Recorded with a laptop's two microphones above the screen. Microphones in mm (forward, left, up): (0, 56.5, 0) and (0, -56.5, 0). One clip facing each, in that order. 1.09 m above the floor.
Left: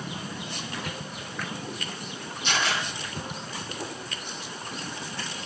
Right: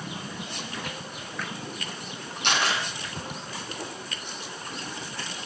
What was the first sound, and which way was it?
A camera shutter, 75° right (ahead or behind).